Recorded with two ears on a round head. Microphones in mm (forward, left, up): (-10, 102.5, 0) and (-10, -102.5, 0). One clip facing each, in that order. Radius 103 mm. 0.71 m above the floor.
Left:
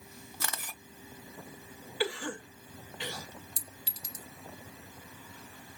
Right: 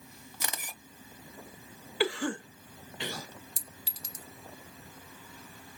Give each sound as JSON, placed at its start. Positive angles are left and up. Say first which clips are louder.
{"t": 0.4, "sound": "a camera shutter", "louder": "right 1 dB", "side_deg": -15, "distance_m": 0.7}
{"t": 2.0, "sound": "a cough", "louder": "right 4 dB", "side_deg": -55, "distance_m": 1.0}
{"t": 3.6, "sound": "a clink", "louder": "even", "side_deg": -75, "distance_m": 1.3}